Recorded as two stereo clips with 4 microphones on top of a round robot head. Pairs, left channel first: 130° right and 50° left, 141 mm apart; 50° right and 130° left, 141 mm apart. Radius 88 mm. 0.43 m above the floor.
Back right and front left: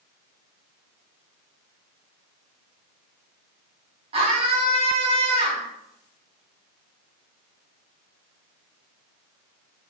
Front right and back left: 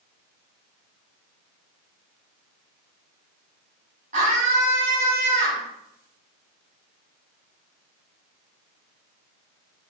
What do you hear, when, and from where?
4.1 s a scream: 95° left, 3.5 m